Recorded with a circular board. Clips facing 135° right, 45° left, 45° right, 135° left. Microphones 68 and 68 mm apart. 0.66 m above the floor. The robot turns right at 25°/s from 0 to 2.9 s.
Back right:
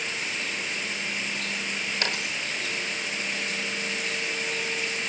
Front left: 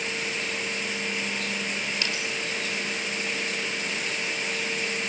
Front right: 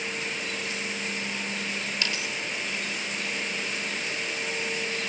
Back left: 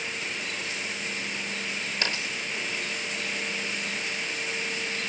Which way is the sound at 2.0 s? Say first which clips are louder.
Even, back left 2 dB; 175° right.